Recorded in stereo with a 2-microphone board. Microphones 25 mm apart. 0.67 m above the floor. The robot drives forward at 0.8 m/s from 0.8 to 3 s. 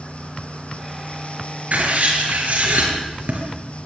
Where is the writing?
85° right, 6 m.